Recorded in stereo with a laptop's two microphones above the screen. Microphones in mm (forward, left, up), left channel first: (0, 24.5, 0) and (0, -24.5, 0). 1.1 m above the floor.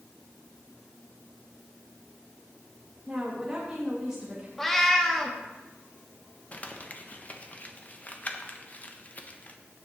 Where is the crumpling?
30° left (ahead or behind), 1.0 m.